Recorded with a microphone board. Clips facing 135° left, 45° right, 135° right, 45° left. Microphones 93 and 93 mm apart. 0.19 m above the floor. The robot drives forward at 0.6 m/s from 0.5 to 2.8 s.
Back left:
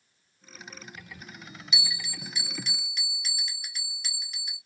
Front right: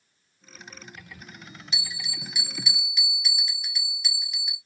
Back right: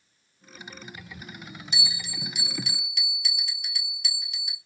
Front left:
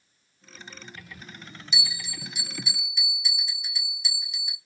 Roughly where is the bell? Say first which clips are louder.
Back left 2 dB, front left 1 dB; right.